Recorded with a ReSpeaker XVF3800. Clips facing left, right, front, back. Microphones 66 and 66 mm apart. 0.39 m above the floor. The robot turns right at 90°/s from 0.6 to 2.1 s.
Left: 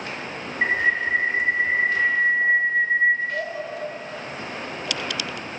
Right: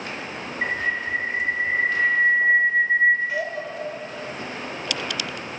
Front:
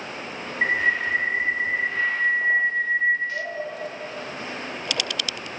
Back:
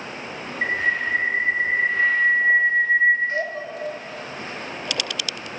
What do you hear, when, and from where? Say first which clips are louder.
0.6 s a bird: left 4 dB, front 1 dB; 60° left, 0.7 m; by 3.4 s 170° right, 0.7 m
3.5 s dishes clattering: even, front 1 dB; 165° left, 2 m